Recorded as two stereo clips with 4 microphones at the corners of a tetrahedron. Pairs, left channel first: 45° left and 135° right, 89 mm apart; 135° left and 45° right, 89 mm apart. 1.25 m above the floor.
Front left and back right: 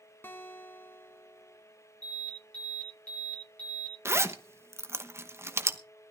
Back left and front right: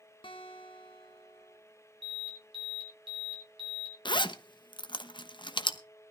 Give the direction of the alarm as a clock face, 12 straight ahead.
1 o'clock.